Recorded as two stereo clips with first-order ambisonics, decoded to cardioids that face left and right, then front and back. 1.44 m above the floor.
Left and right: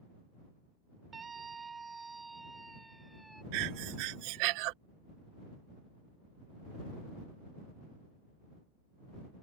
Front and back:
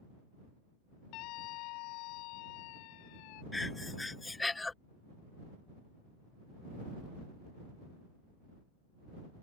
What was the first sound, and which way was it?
A scream, 20° right.